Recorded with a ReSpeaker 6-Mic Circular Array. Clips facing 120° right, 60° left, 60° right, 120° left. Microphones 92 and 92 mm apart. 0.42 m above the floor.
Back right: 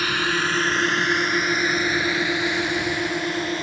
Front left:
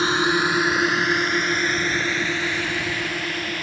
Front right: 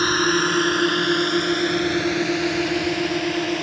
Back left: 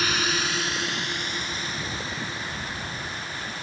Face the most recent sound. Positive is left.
turn(degrees=-55)